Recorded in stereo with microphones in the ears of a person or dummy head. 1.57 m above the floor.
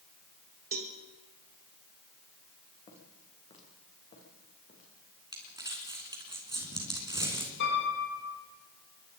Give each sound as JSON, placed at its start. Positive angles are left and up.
{"t": 0.7, "sound": "a cowbell", "side_deg": -40, "distance_m": 1.3}
{"t": 2.9, "sound": "footsteps", "side_deg": 30, "distance_m": 5.5}
{"t": 5.3, "sound": "crumpling", "side_deg": -20, "distance_m": 3.5}
{"t": 7.6, "sound": "a piano", "side_deg": 65, "distance_m": 9.0}